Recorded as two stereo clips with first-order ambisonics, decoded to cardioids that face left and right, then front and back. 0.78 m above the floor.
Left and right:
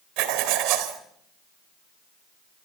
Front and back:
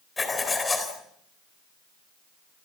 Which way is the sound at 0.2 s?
80° right.